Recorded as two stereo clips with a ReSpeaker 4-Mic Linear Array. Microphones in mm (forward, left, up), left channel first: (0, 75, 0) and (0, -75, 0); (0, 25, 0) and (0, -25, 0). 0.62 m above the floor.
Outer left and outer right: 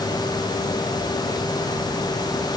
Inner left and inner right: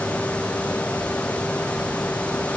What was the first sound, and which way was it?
Only background noise.